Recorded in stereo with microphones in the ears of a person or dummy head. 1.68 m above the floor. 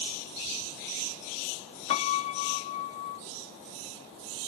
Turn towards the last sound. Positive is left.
turn(degrees=35)  # may be behind; listen again after turning